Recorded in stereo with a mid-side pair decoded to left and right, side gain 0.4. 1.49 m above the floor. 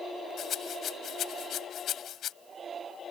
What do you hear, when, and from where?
0.4 s a rattle: 65° left